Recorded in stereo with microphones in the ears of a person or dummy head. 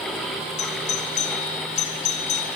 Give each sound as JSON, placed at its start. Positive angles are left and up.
{"t": 0.6, "sound": "a doorbell", "side_deg": 35, "distance_m": 3.5}